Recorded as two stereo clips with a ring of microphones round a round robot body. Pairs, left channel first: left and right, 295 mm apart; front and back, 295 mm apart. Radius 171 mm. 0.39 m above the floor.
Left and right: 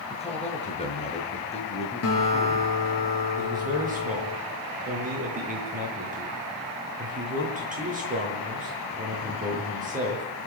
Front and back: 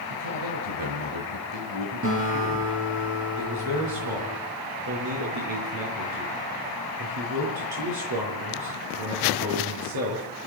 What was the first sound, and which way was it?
A man speaking, 160° left.